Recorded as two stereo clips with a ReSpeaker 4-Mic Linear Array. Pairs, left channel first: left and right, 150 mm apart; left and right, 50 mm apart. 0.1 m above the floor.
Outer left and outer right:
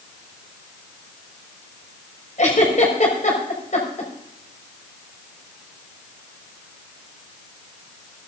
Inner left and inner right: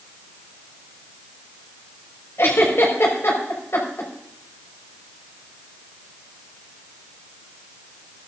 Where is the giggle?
55° left (ahead or behind), 5.5 m.